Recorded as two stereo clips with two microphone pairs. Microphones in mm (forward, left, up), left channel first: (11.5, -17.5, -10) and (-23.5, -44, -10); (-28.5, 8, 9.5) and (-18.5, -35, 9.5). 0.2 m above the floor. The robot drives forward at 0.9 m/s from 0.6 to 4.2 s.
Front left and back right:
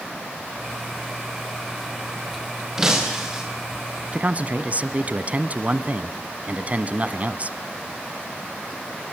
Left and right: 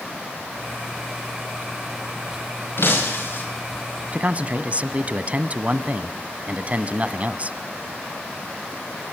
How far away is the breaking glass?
About 9.5 m.